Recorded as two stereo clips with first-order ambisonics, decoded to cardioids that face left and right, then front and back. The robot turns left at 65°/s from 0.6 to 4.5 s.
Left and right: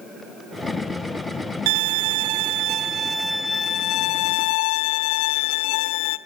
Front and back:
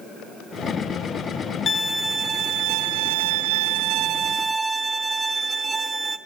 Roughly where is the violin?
Right.